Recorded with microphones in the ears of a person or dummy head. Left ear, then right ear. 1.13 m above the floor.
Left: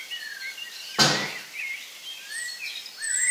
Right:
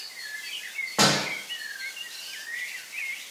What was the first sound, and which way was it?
A door slam, 20° right (ahead or behind).